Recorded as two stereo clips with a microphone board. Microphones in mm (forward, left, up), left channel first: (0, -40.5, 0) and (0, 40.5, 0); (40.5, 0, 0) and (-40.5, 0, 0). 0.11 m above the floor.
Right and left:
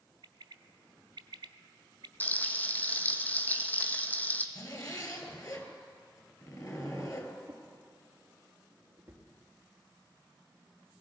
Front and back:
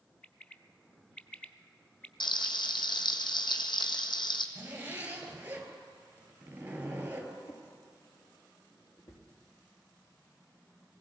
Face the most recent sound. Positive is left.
turn(degrees=20)